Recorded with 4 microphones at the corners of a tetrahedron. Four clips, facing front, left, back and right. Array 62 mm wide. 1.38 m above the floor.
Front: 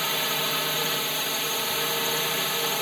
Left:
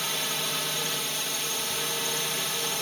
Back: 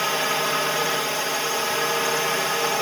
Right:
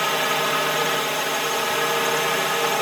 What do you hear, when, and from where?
0.0 s a drone: 120° right